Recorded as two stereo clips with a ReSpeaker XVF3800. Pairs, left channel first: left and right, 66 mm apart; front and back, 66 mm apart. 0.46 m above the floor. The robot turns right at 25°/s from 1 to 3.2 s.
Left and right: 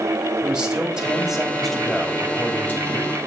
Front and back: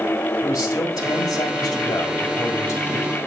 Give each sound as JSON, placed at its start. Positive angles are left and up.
{"t": 0.4, "sound": "a man speaking", "azimuth_deg": -10, "distance_m": 2.0}